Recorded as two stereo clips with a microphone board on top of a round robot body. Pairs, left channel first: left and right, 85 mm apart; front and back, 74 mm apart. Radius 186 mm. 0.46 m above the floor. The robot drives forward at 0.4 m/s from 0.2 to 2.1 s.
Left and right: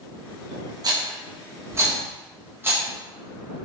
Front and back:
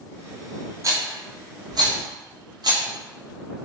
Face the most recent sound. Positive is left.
turn(degrees=-150)